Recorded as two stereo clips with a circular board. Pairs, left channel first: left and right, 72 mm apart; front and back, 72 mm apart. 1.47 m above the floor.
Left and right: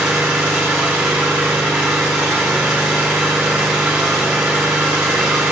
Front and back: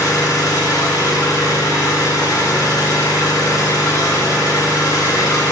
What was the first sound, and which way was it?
An engine running, 15° right.